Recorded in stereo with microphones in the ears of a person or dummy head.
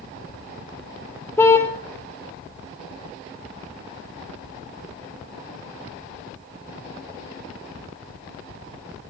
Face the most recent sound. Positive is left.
turn(degrees=10)  # may be behind; listen again after turning